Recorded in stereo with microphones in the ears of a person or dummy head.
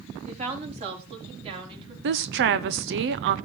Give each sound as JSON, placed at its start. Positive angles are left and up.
{"t": 0.3, "sound": "a woman speaking", "side_deg": -40, "distance_m": 4.0}
{"t": 2.0, "sound": "a woman speaking", "side_deg": -55, "distance_m": 0.7}